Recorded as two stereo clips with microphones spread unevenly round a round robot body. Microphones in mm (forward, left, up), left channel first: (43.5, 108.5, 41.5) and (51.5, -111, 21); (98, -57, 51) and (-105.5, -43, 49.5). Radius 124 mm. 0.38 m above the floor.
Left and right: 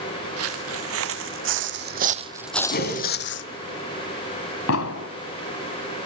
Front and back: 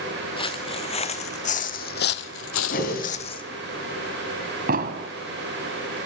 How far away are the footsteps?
About 2.0 m.